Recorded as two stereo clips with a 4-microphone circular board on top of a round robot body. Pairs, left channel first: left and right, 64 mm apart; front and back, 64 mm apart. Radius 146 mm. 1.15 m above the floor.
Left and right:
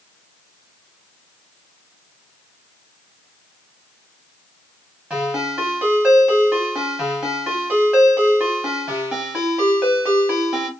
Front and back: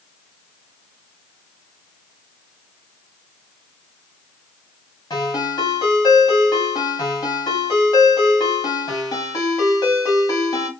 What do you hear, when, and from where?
5.1 s a ringtone: 15° right, 1.8 m